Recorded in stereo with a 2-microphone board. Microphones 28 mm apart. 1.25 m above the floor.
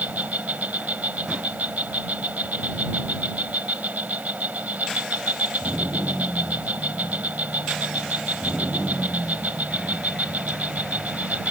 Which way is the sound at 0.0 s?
75° right (ahead or behind).